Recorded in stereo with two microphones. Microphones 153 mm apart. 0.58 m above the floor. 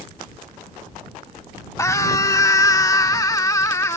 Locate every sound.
1.8 s a scream: 20° left (ahead or behind)